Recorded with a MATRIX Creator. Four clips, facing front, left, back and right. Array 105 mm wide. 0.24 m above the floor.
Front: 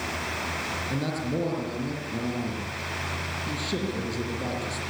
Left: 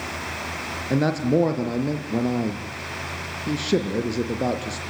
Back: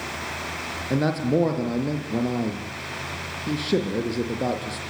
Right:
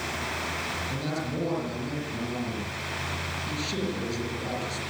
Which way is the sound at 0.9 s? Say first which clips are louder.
Left 14 dB, back 9 dB; 125° left.